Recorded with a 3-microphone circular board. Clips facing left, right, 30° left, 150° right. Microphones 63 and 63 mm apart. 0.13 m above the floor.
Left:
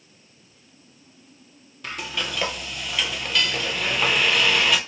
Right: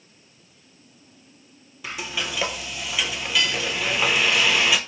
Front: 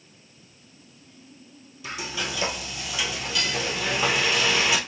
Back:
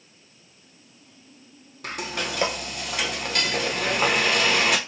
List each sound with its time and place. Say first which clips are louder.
1.8 s frying: even, back 2 dB; 175° right, 0.7 m